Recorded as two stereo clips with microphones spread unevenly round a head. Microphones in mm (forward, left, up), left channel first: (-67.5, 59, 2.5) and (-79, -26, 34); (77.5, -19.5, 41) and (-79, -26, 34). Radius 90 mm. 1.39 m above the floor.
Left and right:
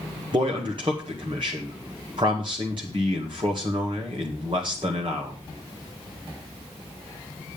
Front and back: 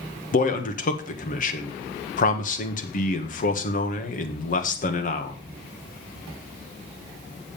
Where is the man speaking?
35° right, 1.7 m.